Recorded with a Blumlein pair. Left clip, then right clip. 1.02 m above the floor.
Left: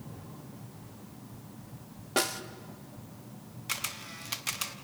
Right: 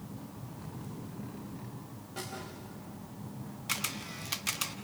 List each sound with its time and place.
2.2 s a snare drum: 50° left, 1.1 m
3.7 s a camera shutter: straight ahead, 1.0 m